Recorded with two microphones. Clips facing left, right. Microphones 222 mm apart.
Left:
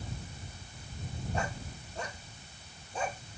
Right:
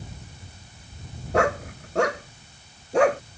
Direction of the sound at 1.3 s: 80° right.